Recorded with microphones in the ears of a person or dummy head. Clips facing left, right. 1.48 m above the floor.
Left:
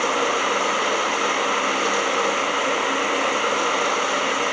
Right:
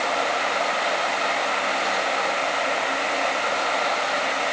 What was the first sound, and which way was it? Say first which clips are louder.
Running water: left 2 dB; 60° left (ahead or behind).